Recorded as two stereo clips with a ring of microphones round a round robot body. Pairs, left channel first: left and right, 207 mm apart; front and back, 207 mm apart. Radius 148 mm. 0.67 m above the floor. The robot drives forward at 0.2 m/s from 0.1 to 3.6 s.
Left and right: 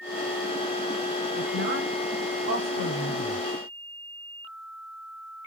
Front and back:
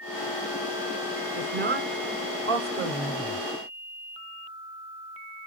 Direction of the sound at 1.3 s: 145° right.